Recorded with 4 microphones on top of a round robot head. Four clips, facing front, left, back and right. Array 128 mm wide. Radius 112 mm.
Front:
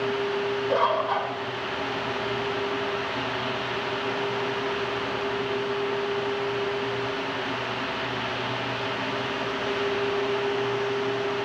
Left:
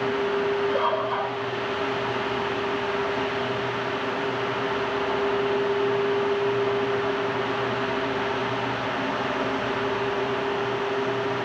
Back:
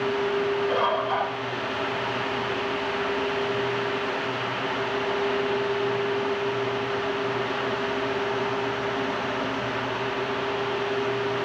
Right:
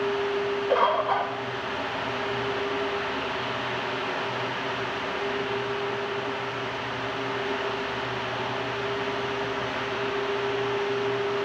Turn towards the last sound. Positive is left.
turn(degrees=-70)